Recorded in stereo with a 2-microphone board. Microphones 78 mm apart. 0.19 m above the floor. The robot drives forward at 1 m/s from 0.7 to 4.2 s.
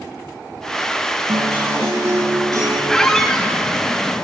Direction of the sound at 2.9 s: 10° left (ahead or behind).